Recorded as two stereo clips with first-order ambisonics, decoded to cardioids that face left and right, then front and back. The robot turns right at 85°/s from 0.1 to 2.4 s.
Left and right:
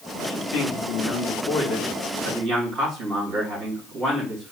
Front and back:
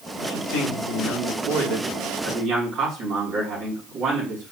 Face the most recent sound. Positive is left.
turn(degrees=-130)